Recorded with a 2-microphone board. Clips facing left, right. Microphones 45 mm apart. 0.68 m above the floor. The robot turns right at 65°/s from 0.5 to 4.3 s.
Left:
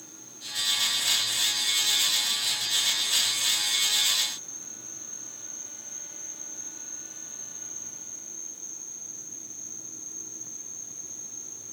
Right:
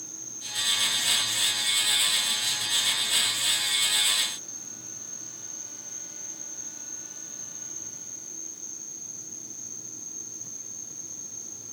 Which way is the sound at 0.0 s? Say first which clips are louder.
Right 2 dB; 105° right.